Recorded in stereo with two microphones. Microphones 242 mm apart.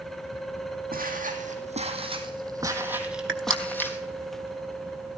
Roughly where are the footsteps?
Right.